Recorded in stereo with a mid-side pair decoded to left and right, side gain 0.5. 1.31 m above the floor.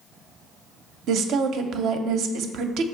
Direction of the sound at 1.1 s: 70° right.